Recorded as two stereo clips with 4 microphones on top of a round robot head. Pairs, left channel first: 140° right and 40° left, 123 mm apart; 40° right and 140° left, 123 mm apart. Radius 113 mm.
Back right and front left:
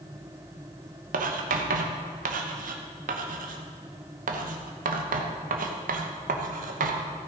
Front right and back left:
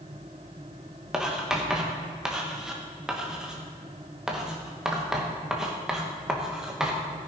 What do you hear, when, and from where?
1.1 s writing: 55° left, 1.0 m